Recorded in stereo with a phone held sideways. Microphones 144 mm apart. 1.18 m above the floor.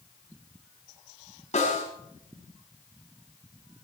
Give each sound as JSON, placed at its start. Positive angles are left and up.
{"t": 1.5, "sound": "a snare drum", "side_deg": 50, "distance_m": 5.0}